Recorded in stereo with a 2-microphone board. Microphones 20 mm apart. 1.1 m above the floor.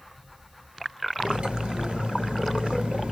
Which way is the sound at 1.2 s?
70° right (ahead or behind).